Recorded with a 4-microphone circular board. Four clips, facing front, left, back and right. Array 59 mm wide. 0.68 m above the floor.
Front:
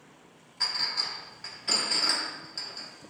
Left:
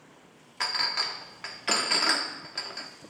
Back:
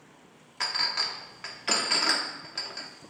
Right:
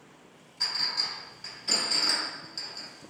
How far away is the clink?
About 0.8 m.